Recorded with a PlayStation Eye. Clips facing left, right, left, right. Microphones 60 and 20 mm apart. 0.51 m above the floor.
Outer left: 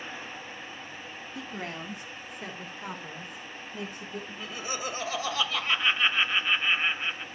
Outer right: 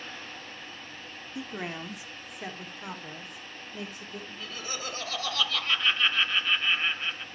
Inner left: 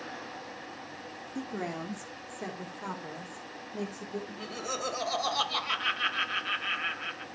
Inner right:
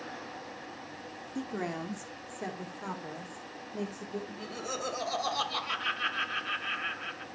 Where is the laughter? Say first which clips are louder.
Outer left 2 dB, inner left 2 dB; 20° left (ahead or behind), 1.9 m.